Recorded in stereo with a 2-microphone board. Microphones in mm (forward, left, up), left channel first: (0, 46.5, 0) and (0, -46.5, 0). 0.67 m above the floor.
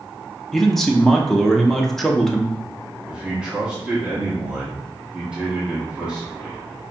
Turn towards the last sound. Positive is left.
turn(degrees=-10)  # may be behind; listen again after turning